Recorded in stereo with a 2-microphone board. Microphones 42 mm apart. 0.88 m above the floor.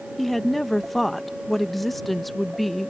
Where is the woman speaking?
5° left (ahead or behind).